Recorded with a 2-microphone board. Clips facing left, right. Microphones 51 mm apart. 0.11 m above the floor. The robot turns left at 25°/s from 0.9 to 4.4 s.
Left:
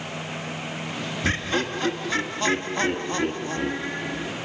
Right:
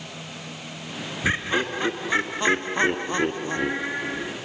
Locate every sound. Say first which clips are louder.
1.2 s laughter: right 2 dB; 15° right (ahead or behind), 1.2 m; by 4.3 s 20° right (ahead or behind), 1.2 m